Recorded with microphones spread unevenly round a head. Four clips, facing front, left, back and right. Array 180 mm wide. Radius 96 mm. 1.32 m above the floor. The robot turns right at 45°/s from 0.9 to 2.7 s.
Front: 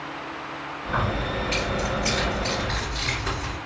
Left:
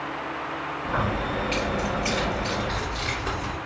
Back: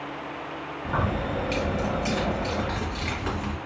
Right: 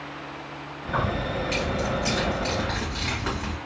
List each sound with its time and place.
0.8 s keys jangling: 155° left, 1.3 m; by 3.6 s 125° right, 1.3 m